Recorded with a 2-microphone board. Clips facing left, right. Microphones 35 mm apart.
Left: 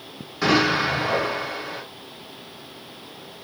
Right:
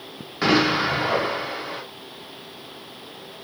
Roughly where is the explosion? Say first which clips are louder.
Even; centre.